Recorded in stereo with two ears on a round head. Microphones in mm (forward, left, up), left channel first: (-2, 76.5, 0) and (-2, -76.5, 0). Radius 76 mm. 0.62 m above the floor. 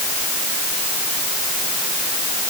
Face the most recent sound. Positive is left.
No sound to turn to.